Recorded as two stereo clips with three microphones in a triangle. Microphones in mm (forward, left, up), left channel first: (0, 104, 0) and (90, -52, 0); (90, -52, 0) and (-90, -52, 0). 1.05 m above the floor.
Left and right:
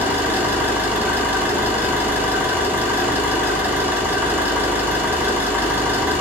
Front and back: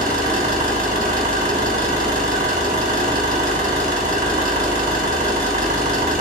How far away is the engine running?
About 3.5 m.